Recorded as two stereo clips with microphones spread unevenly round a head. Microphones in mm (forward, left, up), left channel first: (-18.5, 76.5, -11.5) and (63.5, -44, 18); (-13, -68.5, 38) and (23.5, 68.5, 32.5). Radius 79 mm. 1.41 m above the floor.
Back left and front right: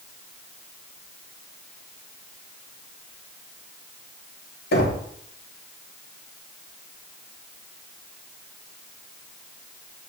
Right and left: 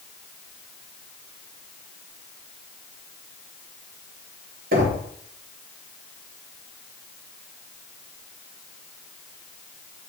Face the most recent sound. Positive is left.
turn(degrees=105)